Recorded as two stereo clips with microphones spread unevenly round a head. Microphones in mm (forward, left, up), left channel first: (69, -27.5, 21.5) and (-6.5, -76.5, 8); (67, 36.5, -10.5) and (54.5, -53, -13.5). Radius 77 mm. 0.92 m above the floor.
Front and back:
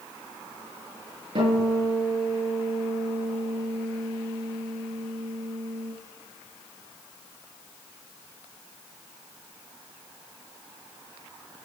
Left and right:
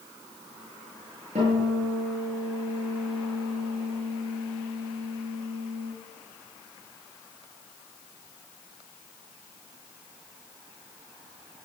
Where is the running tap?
I don't hear a running tap.